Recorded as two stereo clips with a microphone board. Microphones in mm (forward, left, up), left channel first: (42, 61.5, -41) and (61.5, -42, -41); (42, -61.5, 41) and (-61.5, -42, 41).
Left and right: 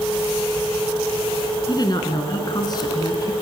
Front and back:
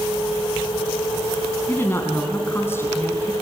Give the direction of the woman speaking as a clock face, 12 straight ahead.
10 o'clock.